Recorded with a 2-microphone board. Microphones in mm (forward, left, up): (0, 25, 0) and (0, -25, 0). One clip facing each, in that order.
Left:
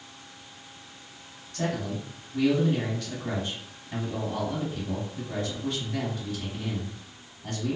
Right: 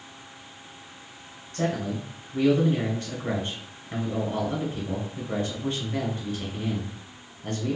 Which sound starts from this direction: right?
A man speaking, at 1.5 s.